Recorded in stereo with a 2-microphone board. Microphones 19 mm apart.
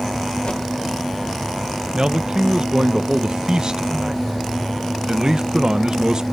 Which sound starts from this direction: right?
A man speaking, at 1.9 s.